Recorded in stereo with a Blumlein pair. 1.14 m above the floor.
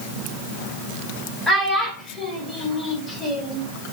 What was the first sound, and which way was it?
A child speaking, 5° left.